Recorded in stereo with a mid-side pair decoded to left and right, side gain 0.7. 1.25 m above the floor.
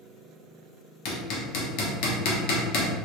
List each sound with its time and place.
1.1 s hammering: 65° left, 1.0 m